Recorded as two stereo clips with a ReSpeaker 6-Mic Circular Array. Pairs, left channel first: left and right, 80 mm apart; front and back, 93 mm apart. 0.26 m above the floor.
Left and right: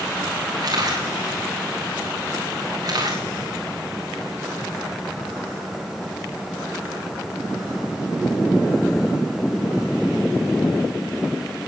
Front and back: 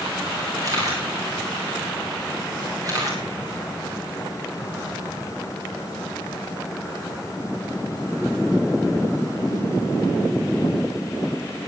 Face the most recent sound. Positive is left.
turn(degrees=-130)